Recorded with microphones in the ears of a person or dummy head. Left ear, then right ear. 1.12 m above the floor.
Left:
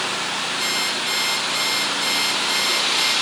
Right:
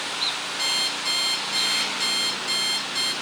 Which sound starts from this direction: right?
An alarm clock, at 0.6 s.